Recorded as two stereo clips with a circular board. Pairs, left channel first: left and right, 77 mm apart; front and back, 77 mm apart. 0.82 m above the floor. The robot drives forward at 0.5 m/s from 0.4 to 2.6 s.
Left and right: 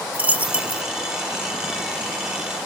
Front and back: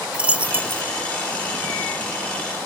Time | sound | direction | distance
0.1 | a dropped coin | 130° right | 0.5 m